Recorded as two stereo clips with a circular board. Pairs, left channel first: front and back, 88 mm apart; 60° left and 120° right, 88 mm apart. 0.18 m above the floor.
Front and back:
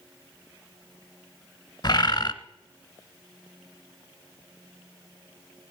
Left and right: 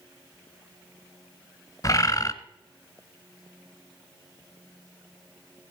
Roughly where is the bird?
Ahead left.